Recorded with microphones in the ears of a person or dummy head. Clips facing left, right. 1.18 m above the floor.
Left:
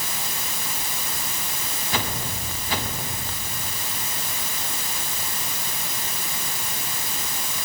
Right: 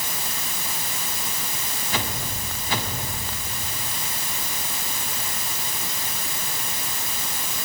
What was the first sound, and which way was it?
Only background noise.